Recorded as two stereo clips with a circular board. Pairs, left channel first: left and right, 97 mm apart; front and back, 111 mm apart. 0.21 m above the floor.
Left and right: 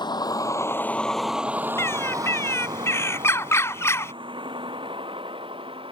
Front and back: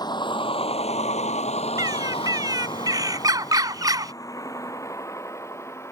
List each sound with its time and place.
0.0 s a vehicle: 50° left; by 5.9 s 65° right
1.8 s a bird: 140° left